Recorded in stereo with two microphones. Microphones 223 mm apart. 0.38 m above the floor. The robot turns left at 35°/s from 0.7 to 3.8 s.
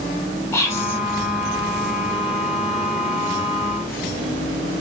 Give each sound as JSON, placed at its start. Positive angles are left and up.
{"t": 0.5, "sound": "whispering", "side_deg": 10, "distance_m": 1.2}